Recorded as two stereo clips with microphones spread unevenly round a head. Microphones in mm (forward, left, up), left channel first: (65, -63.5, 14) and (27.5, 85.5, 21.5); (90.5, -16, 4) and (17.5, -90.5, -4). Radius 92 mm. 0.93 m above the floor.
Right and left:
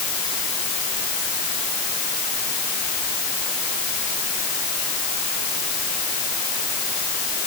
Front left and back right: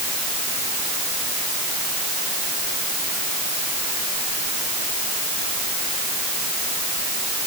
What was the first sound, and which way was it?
Only background noise.